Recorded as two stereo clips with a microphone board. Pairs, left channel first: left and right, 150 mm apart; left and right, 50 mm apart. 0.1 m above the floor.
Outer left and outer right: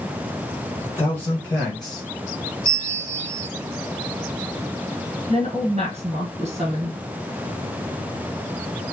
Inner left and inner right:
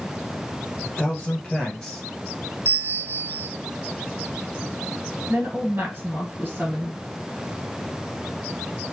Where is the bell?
55° right (ahead or behind), 0.5 m.